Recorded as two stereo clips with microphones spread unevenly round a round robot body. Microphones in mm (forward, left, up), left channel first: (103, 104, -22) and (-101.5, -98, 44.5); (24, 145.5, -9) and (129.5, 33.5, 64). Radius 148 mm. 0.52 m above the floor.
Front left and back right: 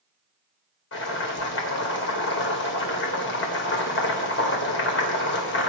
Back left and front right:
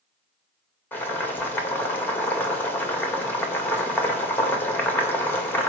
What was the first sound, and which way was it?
Boiling, 75° left.